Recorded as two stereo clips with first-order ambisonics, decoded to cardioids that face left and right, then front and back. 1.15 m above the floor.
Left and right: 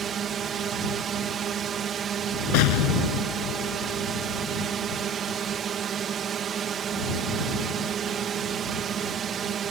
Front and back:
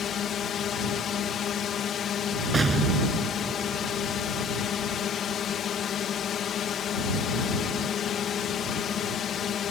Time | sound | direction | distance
0.0 | a drone | 40° right | ?
2.5 | an explosion | 100° left | ?